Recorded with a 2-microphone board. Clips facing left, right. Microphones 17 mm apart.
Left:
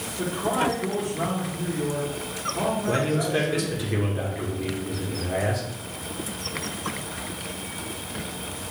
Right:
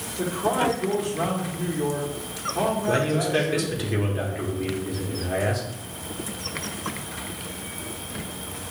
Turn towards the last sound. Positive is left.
turn(degrees=-10)  # may be behind; listen again after turning